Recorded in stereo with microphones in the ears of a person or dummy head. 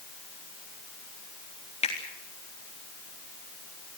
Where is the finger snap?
40° left (ahead or behind), 3.5 m.